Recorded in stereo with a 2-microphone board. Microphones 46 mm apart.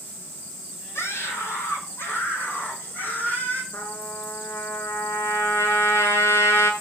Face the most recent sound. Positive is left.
turn(degrees=80)